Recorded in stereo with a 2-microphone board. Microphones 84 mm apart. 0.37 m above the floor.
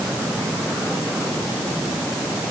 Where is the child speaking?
No child speaking in this recording.